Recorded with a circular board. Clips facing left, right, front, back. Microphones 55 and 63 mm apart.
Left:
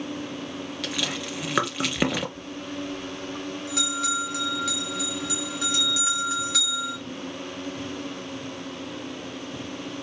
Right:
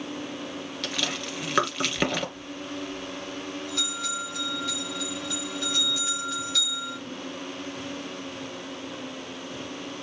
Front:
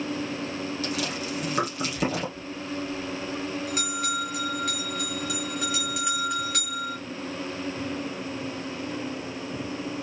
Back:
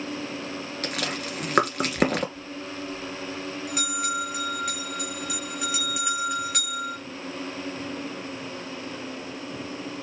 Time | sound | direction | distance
0.8 | chewing | 175° left | 2.5 m
2.4 | a bell | 95° left | 4 m